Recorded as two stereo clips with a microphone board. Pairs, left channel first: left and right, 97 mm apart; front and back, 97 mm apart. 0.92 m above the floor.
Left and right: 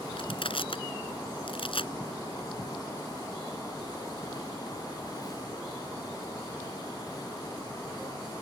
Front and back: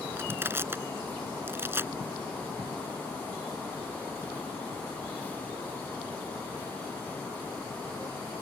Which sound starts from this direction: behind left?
Crushing, at 0.2 s.